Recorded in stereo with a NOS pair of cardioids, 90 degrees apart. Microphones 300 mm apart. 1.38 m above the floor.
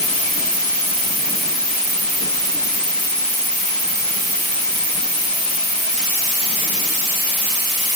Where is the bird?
I don't hear a bird.